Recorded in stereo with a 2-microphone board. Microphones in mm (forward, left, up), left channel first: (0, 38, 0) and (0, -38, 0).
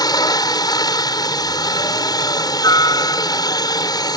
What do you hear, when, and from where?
0.0 s a helicopter: 65° left (ahead or behind)